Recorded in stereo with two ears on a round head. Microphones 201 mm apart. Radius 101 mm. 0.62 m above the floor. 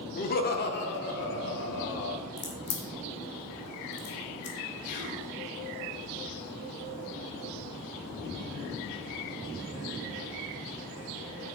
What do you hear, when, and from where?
0.2 s laughter: 35° left (ahead or behind), 1.1 m; by 2.2 s 55° left (ahead or behind), 2.5 m
2.4 s a crack: 50° left (ahead or behind), 1.6 m
4.8 s whispering: 40° left (ahead or behind), 3.5 m